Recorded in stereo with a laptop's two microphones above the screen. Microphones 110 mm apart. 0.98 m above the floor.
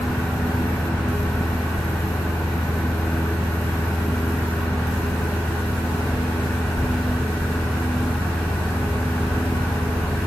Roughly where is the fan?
Centre.